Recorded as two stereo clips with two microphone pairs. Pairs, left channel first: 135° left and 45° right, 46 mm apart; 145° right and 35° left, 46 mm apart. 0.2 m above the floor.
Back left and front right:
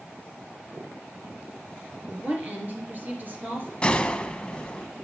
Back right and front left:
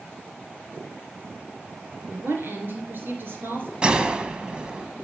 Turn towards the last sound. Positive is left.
turn(degrees=80)